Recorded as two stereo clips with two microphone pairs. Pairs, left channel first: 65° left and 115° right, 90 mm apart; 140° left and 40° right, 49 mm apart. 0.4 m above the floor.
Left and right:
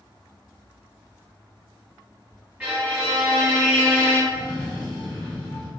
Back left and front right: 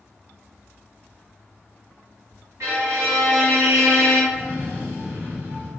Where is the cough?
75° right, 1.9 m.